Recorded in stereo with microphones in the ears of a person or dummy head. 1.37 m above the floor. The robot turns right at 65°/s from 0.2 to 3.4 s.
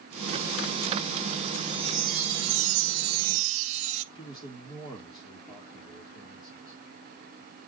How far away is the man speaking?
About 4.5 m.